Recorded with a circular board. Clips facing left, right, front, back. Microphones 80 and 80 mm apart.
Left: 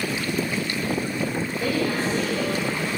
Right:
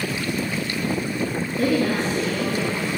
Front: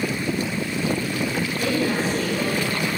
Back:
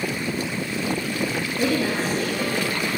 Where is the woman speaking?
115° right, 8.5 m; by 2.9 s 110° right, 9.5 m.